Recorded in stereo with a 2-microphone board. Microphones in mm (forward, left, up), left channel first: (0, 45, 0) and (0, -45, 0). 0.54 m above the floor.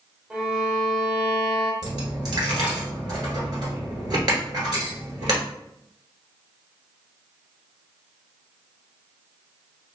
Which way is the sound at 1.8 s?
50° right (ahead or behind).